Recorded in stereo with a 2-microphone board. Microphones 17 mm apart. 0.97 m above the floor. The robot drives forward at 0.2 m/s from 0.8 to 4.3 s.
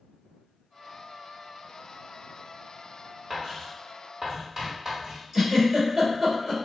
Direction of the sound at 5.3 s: 15° right (ahead or behind).